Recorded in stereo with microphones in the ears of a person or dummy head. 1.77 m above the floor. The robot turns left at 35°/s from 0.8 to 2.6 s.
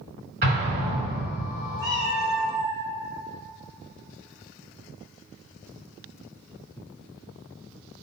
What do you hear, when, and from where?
0.4 s an explosion: 45° right (ahead or behind), 1.5 m
1.8 s a cat meowing: 5° right (ahead or behind), 1.0 m; by 2.8 s centre (ahead or behind), 1.0 m